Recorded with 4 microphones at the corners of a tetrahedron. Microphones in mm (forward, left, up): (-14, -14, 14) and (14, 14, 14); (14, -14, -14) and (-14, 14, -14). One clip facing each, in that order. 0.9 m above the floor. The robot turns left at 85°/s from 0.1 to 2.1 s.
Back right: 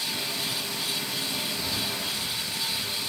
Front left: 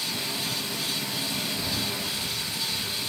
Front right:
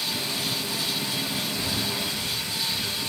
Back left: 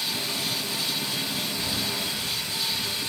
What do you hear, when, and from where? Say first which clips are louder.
1.6 s breathing: even, front right 1 dB; 20° right, 0.9 m; by 2.9 s 65° right, 0.9 m